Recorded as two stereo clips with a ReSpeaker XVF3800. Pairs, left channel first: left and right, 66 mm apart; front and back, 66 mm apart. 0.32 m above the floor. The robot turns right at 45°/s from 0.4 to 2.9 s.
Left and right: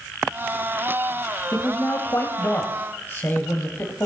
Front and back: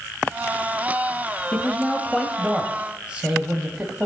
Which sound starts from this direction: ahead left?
A man speaking, at 1.5 s.